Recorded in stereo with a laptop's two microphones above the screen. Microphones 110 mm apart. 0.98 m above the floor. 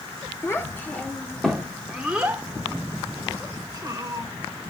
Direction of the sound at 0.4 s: 25° left (ahead or behind).